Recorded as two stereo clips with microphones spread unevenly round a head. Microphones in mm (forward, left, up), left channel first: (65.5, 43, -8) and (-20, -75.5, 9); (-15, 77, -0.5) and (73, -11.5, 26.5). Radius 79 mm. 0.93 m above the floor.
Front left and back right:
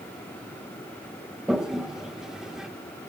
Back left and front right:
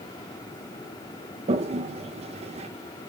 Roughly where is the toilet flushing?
Ahead right.